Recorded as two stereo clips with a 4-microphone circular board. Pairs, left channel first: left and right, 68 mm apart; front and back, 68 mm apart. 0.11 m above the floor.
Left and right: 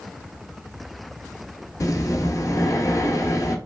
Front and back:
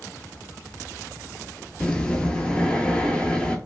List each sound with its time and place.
1.8 s breathing: 75° left, 0.5 m